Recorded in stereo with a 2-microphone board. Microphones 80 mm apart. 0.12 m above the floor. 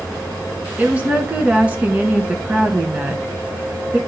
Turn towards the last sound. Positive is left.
turn(degrees=-20)  # may be behind; listen again after turning